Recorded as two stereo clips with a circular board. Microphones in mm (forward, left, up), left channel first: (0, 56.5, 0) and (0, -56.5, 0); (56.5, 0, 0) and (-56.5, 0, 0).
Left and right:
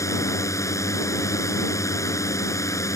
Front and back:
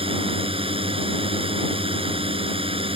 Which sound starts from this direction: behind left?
A drone, at 0.0 s.